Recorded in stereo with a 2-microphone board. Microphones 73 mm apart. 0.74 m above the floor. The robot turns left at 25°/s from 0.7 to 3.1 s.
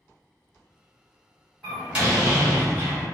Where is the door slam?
10° right, 1.4 m; by 3.1 s 45° right, 1.4 m.